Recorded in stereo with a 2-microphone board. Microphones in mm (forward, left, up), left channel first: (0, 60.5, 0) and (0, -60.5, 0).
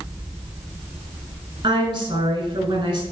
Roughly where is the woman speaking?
Right.